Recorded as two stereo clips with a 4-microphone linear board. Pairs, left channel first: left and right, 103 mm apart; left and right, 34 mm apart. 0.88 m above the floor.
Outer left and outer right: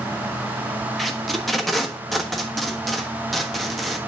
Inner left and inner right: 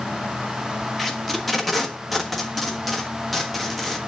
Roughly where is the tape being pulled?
Centre.